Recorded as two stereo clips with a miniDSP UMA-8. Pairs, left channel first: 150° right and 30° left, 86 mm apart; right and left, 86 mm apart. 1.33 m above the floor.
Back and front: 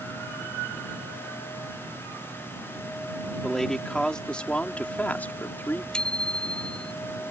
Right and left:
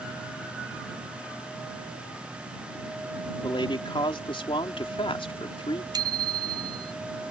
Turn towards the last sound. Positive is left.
turn(degrees=130)